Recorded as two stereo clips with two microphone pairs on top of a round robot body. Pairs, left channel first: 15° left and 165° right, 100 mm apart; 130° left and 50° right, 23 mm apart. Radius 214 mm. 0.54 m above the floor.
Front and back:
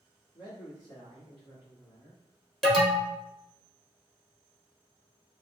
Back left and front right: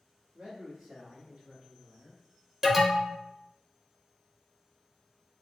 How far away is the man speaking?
About 1.8 m.